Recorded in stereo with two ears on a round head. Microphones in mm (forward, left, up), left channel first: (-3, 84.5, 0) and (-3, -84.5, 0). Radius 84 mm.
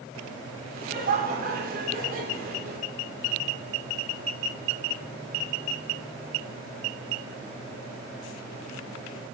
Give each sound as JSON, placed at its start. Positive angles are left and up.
{"t": 0.7, "sound": "laughter", "side_deg": -45, "distance_m": 2.5}